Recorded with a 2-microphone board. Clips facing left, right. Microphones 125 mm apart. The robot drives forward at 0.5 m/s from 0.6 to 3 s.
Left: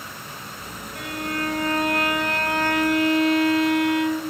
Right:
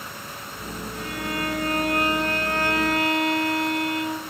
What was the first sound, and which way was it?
A violin, 60° left (ahead or behind).